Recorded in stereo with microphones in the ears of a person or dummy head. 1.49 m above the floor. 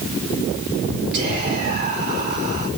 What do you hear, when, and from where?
1.1 s whispering: 55° right (ahead or behind), 5.5 m